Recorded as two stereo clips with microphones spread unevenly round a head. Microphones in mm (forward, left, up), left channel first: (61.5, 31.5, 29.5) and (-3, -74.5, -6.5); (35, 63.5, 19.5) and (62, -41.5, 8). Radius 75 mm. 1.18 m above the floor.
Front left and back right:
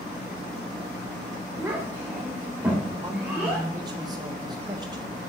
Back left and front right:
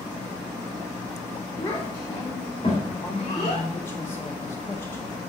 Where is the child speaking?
170° left, 3 m; by 3.7 s 155° left, 4.5 m.